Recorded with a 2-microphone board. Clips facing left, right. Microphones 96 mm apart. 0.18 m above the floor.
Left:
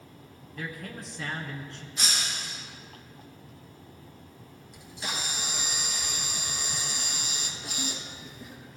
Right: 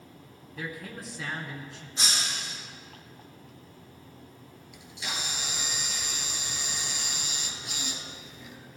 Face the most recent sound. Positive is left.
turn(degrees=40)  # may be behind; listen again after turning